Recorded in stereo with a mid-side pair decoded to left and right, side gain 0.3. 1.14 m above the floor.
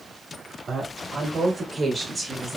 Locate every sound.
0.7 s a woman speaking: 65° right, 3.5 m; by 2.6 s 25° right, 2 m